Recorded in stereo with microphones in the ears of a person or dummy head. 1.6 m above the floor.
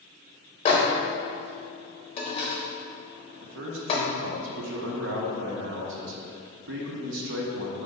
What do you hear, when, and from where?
0.7 s a microwave: 40° left (ahead or behind), 0.6 m
3.4 s a man speaking: 70° right (ahead or behind), 0.7 m